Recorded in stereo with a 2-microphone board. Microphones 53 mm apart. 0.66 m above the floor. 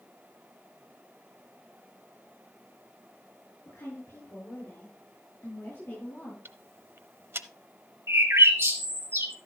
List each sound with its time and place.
3.6 s a woman speaking: 60° left (ahead or behind), 8.5 m; by 6.3 s 45° left (ahead or behind), 10 m
6.5 s ticking: 50° right (ahead or behind), 0.6 m
8.1 s a bird: 60° right (ahead or behind), 1.7 m